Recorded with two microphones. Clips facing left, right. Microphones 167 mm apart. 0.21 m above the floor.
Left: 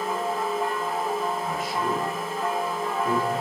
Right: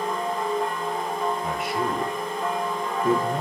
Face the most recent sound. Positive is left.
turn(degrees=-45)  # may be behind; listen again after turning